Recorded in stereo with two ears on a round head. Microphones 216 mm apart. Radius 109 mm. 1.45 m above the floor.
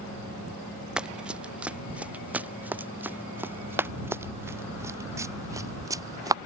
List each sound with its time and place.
1.0 s running footsteps: 5° right (ahead or behind); by 6.4 s 15° right (ahead or behind)